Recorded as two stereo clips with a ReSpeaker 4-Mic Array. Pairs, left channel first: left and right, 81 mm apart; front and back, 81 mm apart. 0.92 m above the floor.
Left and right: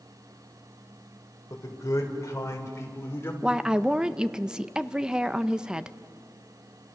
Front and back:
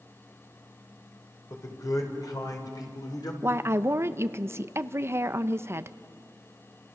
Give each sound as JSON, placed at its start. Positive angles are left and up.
{"t": 1.5, "sound": "a man speaking", "azimuth_deg": 45, "distance_m": 4.5}
{"t": 3.4, "sound": "a woman speaking", "azimuth_deg": -165, "distance_m": 0.7}